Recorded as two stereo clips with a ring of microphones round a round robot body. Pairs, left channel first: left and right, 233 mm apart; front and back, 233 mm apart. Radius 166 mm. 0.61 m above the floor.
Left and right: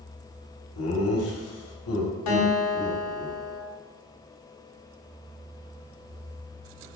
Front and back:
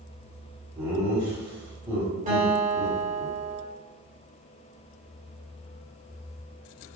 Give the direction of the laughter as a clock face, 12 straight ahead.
9 o'clock.